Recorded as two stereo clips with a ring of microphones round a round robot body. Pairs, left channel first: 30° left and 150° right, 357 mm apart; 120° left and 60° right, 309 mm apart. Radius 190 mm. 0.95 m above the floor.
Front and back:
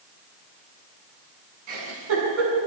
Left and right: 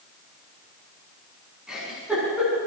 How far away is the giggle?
About 7.5 m.